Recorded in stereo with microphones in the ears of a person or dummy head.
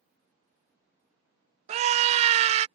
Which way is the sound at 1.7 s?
35° right (ahead or behind).